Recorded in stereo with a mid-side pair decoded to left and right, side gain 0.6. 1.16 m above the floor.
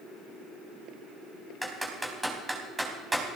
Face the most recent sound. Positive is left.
turn(degrees=-10)